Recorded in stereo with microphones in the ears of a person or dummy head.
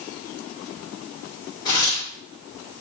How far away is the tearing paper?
About 1.2 m.